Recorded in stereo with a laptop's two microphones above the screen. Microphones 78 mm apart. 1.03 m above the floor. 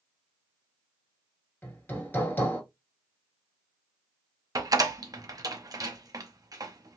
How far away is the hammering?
About 1.6 m.